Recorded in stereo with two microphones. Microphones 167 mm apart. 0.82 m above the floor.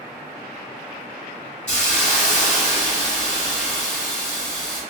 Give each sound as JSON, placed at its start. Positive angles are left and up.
{"t": 1.7, "sound": "a hiss", "side_deg": 50, "distance_m": 1.3}